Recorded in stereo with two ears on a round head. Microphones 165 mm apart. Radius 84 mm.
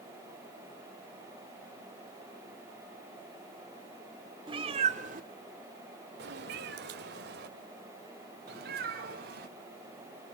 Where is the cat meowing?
25° right (ahead or behind), 1.8 m; by 9.5 s 55° right (ahead or behind), 4.5 m.